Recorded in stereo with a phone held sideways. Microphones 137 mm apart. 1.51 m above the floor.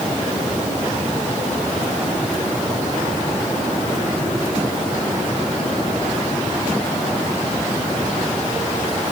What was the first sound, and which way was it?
Only background noise.